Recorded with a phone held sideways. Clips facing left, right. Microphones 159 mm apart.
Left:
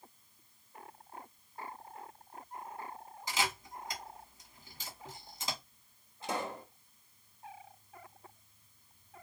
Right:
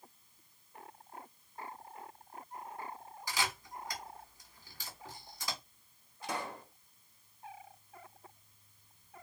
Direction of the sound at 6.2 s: 25° left (ahead or behind).